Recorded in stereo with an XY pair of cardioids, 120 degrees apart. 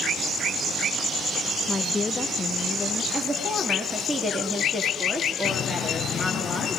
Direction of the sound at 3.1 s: 5° right.